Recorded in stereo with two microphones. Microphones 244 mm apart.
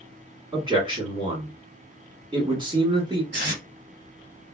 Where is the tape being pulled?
40° right (ahead or behind), 2.0 m.